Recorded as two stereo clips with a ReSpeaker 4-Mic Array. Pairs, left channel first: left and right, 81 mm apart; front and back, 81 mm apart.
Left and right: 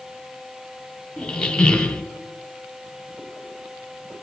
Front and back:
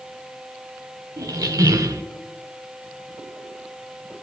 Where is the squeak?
165° left, 0.7 m.